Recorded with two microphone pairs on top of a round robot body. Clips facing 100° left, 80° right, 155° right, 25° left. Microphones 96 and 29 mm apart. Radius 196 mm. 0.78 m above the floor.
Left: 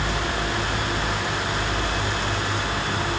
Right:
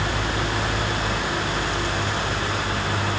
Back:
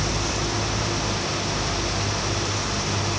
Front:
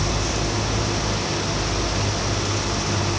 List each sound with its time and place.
Only background noise.